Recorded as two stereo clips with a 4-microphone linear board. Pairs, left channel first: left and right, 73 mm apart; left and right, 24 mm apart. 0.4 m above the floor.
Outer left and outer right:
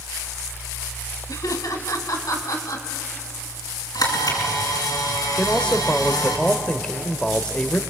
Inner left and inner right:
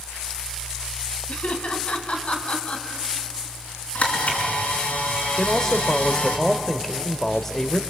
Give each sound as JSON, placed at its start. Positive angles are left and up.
{"t": 1.3, "sound": "laughter", "side_deg": 65, "distance_m": 3.0}
{"t": 4.0, "sound": "a camera shutter", "side_deg": 75, "distance_m": 5.5}
{"t": 5.4, "sound": "a man speaking", "side_deg": 15, "distance_m": 1.2}